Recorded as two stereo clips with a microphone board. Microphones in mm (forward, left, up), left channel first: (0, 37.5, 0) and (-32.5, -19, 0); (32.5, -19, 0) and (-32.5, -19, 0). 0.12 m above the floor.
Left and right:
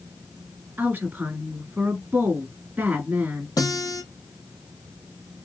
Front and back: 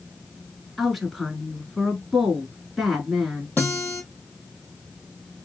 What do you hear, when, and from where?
0.8 s a woman speaking: 90° right, 1.4 m
3.6 s a guitar: 60° left, 2 m